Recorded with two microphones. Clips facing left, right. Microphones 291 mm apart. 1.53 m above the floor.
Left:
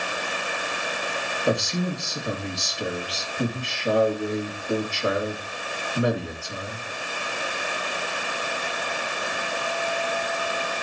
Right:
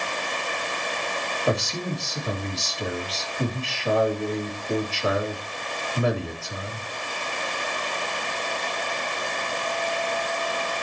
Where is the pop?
No pop in this recording.